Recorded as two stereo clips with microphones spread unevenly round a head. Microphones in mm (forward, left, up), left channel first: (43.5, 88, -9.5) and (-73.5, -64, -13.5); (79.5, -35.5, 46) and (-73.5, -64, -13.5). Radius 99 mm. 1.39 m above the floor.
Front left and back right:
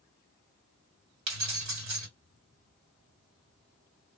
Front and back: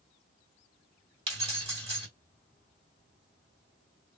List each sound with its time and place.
1.3 s keys jangling: 110° right, 1.9 m